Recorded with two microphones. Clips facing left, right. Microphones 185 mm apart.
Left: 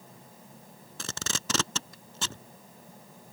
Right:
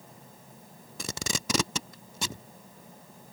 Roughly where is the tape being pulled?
Centre.